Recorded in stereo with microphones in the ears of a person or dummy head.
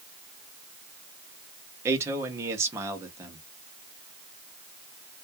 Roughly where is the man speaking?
Centre.